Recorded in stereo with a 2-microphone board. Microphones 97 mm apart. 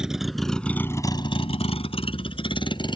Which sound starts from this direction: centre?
A vehicle, at 0.0 s.